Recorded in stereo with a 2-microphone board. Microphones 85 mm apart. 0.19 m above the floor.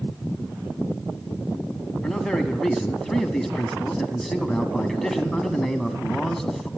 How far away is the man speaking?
About 1.1 m.